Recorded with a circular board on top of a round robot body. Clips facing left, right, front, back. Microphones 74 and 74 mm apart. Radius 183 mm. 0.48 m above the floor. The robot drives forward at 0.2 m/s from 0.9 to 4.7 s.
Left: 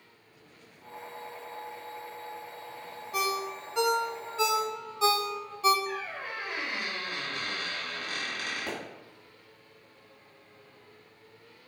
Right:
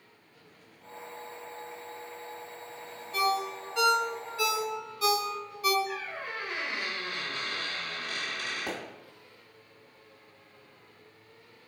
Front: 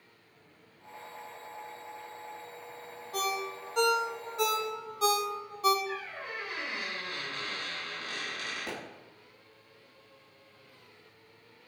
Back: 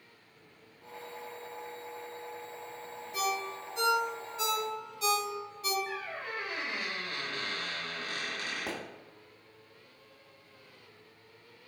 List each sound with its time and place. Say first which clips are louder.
3.1 s a ringtone: right 3 dB, even; 15° left, 0.7 m; by 5.8 s 30° left, 0.5 m
5.9 s a squeak: left 1 dB, even; 130° left, 1.0 m
8.7 s a pop: right 1 dB, back 2 dB; 165° right, 1.0 m